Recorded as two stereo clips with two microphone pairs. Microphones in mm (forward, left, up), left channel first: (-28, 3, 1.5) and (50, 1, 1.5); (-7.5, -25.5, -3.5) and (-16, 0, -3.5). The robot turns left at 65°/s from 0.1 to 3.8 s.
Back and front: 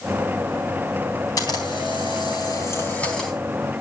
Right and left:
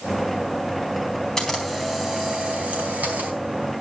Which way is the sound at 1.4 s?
145° right.